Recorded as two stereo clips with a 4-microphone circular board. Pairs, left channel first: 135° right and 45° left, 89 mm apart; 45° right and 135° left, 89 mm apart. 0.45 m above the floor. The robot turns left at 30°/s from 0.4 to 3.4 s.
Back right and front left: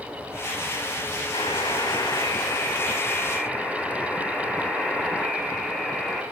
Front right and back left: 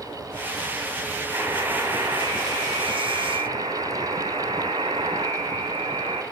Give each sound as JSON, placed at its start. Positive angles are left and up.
{"t": 1.3, "sound": "a buzzer", "azimuth_deg": -160, "distance_m": 1.2}